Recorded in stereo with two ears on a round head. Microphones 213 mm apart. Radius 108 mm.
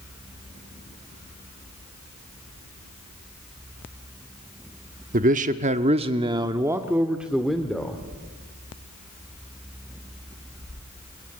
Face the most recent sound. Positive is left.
turn(degrees=5)  # may be behind; listen again after turning